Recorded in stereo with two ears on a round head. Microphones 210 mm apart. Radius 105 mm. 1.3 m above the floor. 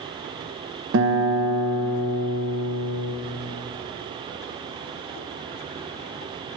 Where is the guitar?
60° right (ahead or behind), 0.7 m.